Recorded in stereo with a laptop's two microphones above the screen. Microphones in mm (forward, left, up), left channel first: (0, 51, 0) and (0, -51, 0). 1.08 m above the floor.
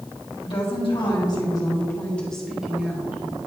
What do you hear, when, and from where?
0.4 s a woman speaking: 60° left (ahead or behind), 1.8 m; by 3.1 s 20° right (ahead or behind), 1.5 m